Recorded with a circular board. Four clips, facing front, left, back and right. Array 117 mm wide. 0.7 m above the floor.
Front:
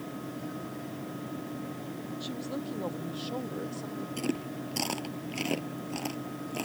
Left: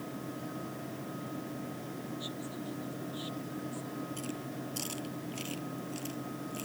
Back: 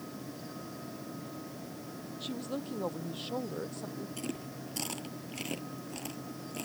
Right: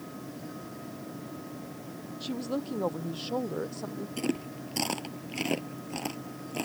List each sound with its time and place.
2.2 s a woman speaking: 95° right
4.2 s chewing: 65° right